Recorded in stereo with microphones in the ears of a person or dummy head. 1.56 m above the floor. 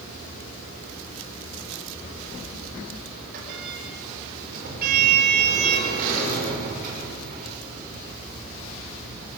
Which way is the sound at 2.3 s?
50° right (ahead or behind).